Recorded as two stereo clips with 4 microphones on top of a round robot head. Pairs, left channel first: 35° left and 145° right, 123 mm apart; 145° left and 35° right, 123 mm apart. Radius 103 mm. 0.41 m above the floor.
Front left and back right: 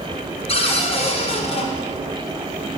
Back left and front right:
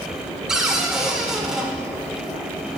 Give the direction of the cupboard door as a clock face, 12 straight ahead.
10 o'clock.